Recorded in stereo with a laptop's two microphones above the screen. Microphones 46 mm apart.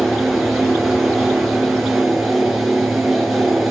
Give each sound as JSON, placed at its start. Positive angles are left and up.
{"t": 0.0, "sound": "a fan", "side_deg": 0, "distance_m": 8.0}